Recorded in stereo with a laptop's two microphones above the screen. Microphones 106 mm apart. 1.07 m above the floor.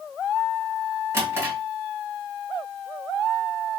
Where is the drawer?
25° right (ahead or behind), 2 m.